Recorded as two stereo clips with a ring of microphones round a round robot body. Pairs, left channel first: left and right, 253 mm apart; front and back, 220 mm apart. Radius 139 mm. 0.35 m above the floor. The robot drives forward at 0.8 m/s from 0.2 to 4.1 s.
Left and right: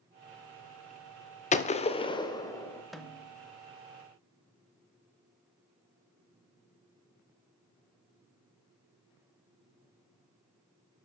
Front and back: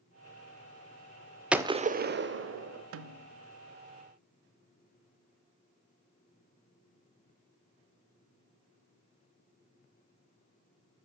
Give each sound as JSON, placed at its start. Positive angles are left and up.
{"t": 1.5, "sound": "a gunshot", "azimuth_deg": 95, "distance_m": 0.5}
{"t": 2.9, "sound": "a snare drum", "azimuth_deg": 180, "distance_m": 0.5}